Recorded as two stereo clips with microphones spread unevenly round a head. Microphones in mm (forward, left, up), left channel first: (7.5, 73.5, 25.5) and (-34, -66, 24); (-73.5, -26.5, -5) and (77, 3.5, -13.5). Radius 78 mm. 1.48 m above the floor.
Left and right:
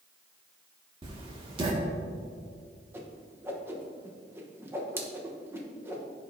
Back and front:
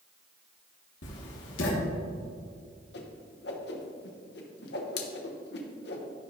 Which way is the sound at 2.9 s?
Straight behind.